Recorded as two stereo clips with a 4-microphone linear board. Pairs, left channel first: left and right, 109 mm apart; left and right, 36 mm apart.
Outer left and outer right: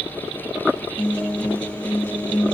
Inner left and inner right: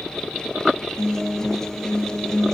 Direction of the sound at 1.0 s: 10° left (ahead or behind).